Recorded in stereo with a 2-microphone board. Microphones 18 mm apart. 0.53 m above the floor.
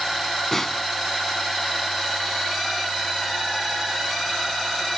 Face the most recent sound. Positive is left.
turn(degrees=20)  # may be behind; listen again after turning